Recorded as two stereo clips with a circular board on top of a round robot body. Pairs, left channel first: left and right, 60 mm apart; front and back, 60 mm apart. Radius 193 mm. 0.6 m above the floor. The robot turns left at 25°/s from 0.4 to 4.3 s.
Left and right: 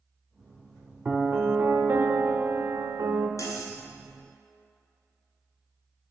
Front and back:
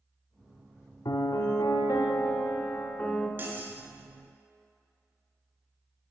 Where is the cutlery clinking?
125° left, 1.7 m; by 3.8 s 115° left, 1.7 m.